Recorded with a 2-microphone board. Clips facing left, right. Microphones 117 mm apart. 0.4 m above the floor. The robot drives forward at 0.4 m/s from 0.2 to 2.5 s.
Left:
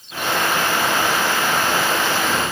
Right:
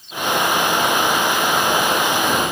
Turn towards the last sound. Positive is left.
No sound to turn to.